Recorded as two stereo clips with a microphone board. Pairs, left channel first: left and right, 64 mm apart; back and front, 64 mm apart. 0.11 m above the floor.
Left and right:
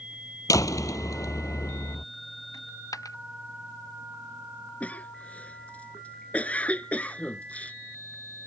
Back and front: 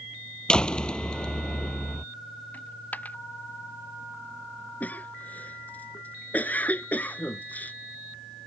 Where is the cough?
140° left.